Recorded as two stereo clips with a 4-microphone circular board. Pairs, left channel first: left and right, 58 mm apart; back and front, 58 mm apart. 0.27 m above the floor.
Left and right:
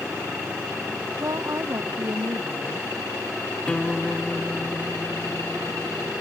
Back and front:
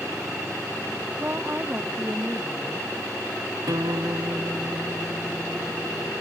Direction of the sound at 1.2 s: 60° right.